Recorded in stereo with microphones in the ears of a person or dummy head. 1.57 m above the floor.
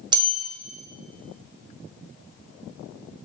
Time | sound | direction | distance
0.1 | a bell | 20° right (ahead or behind) | 0.8 m